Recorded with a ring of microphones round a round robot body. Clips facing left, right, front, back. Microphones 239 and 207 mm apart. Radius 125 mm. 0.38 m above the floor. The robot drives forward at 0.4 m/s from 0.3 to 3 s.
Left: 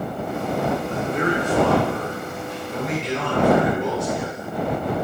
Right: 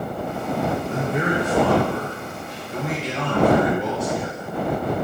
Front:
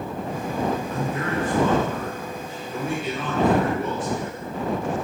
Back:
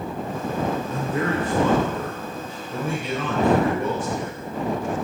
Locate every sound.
0.9 s a man speaking: 155° right, 0.8 m; by 4.5 s 170° right, 1.4 m